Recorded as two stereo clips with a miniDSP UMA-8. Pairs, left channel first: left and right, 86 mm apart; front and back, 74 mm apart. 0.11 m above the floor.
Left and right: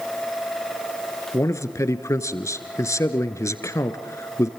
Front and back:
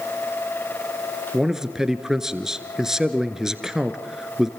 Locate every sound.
1.3 s a man speaking: 105° left, 1.5 m